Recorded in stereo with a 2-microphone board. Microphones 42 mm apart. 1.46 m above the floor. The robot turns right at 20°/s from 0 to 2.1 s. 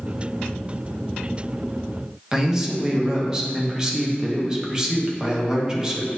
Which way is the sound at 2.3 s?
15° right (ahead or behind).